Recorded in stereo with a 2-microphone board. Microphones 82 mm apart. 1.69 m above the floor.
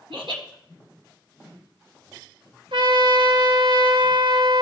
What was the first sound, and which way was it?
Laughter, 80° right.